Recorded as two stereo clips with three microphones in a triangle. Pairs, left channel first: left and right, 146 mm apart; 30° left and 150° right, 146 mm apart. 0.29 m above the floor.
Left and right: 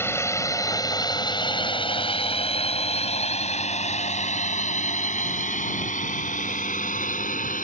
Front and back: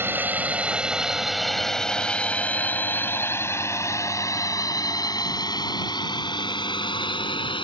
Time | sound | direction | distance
0.0 | a drone | 145° left | ?